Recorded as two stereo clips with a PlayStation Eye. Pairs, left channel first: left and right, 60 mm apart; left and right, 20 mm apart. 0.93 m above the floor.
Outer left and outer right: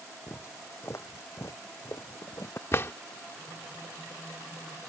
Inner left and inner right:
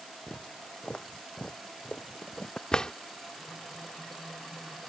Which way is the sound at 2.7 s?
45° left (ahead or behind).